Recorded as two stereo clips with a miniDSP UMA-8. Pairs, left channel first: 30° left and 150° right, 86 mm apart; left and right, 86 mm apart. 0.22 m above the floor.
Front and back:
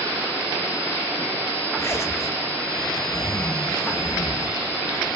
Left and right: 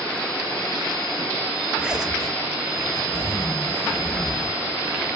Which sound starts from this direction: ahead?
A zipper, at 1.8 s.